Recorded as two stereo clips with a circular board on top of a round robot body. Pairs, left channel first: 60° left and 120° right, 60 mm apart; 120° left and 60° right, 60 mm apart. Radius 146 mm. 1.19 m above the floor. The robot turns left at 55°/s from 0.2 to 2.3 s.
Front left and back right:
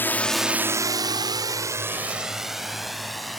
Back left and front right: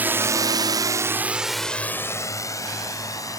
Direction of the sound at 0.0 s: 5° left.